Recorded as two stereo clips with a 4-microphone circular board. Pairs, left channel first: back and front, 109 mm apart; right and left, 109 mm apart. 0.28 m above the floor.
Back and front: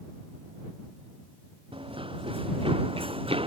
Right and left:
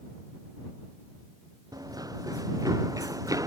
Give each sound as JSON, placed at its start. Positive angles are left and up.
{"t": 1.7, "sound": "running footsteps", "azimuth_deg": 35}